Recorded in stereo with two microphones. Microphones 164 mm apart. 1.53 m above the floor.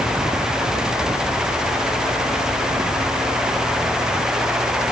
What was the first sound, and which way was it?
Only background noise.